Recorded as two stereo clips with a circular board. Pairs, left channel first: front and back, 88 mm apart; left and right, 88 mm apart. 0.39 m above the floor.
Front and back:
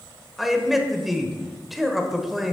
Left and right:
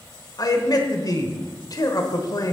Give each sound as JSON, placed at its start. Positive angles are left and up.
{"t": 0.4, "sound": "a man speaking", "azimuth_deg": 95, "distance_m": 1.1}